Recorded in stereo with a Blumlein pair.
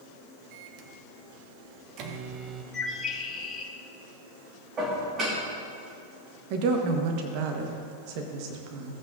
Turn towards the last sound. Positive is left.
turn(degrees=-45)